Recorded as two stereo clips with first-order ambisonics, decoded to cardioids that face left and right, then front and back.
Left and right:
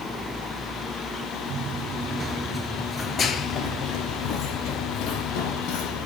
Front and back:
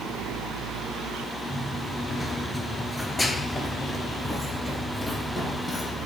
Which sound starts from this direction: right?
Running footsteps, at 1.5 s.